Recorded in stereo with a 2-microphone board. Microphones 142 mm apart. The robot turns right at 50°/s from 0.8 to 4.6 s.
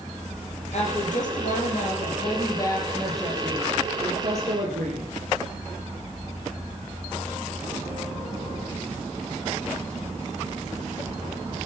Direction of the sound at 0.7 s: 60° left.